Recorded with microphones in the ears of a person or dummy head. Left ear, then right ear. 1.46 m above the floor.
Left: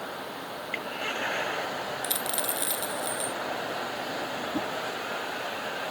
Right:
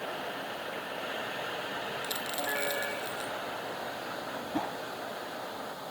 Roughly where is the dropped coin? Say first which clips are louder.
Left 2 dB; centre.